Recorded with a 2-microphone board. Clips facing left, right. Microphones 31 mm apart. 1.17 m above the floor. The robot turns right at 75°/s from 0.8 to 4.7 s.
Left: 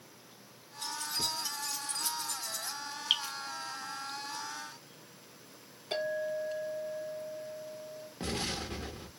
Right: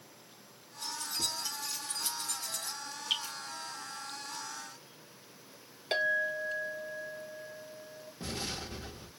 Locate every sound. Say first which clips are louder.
0.8 s keys jangling: left 1 dB; 55° left (ahead or behind), 0.9 m; by 2.8 s 80° right, 0.9 m
3.1 s dripping: left 3 dB; 35° left (ahead or behind), 1.2 m; by 3.3 s 30° left (ahead or behind), 1.2 m
5.9 s a clink: right 3 dB; 60° right (ahead or behind), 0.8 m
8.2 s an explosion: left 3 dB; 55° left (ahead or behind), 0.8 m